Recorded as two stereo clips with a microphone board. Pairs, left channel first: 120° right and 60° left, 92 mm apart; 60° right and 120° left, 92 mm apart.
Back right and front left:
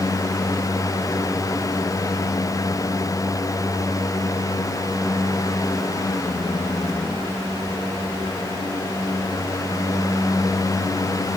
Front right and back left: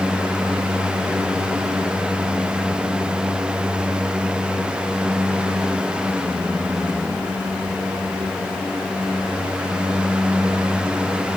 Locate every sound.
Only background noise.